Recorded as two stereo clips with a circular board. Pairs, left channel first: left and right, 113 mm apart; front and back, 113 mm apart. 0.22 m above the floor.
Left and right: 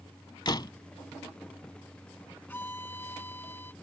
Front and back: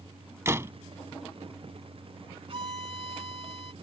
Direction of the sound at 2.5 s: 160° left.